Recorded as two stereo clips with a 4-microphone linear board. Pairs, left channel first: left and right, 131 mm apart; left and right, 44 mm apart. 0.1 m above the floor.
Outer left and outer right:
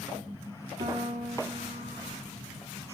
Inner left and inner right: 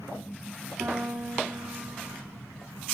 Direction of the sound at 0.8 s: 70° right (ahead or behind).